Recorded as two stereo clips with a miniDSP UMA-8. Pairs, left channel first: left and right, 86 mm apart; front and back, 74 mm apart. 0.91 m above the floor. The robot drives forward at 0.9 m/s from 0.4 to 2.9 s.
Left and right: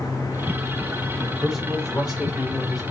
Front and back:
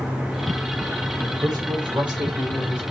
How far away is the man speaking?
About 3 m.